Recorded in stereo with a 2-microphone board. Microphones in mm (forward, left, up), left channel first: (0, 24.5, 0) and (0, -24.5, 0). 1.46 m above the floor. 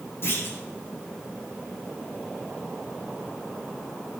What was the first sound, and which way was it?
A clunk, 55° left (ahead or behind).